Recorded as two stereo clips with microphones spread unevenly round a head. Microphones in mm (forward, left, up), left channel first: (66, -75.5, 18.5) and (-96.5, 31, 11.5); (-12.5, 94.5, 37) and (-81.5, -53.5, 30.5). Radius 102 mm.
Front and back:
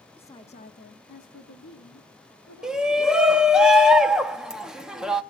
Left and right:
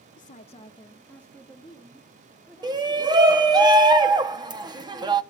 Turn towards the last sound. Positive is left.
turn(degrees=-135)